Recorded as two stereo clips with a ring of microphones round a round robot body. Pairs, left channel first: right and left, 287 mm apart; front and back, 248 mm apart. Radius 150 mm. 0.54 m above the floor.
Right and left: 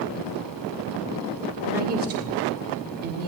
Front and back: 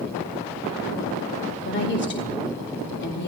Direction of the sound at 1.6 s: 35° left.